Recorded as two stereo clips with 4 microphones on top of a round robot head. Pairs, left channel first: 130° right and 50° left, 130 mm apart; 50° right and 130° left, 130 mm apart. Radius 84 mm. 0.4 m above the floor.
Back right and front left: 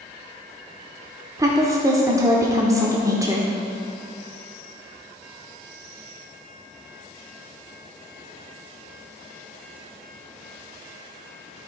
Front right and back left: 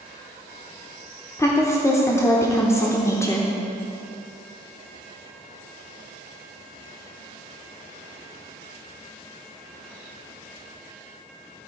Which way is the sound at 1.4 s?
5° left.